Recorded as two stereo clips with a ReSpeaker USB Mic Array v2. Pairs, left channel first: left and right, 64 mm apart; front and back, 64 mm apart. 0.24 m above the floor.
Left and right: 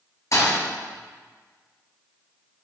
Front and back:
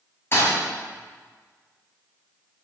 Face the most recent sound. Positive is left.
turn(degrees=55)